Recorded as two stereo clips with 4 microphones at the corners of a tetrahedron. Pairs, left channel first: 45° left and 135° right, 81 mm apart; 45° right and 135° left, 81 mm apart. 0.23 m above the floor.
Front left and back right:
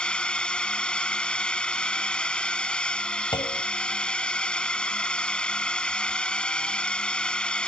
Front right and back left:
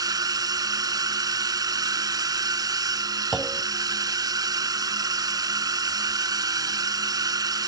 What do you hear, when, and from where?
0.0 s a drone: 120° left
3.3 s a clunk: 50° left